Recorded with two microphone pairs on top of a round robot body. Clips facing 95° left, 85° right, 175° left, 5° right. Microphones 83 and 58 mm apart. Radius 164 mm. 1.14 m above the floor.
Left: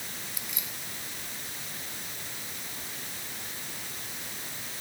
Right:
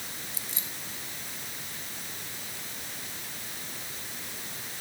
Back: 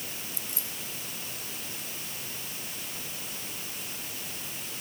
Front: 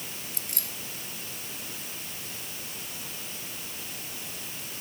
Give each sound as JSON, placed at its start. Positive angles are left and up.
{"t": 0.3, "sound": "keys jangling", "azimuth_deg": -25}